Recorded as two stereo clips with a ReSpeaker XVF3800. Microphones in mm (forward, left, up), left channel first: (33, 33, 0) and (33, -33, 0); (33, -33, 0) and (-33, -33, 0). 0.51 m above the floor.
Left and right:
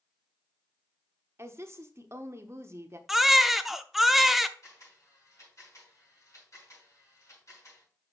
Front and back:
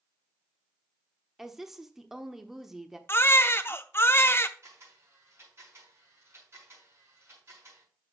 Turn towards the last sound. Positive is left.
turn(degrees=130)